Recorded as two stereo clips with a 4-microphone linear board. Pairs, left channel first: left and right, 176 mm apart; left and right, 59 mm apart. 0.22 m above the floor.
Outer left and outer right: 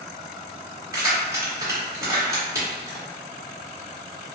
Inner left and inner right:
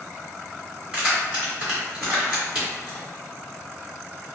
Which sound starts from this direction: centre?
Keys jangling, at 0.9 s.